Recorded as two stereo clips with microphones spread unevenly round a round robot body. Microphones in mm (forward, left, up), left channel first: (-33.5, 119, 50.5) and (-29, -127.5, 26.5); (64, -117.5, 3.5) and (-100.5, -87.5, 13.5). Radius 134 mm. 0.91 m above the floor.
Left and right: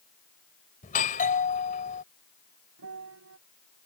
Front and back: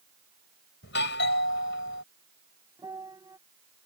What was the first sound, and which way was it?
A doorbell, 30° left.